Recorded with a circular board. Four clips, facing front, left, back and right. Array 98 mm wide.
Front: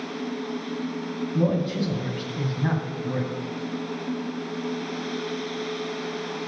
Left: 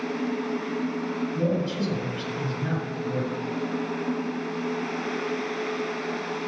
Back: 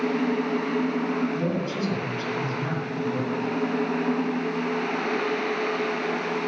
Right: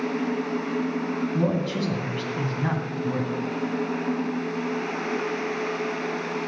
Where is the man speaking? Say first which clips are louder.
Even, front 3 dB; 70° right, 1.9 m.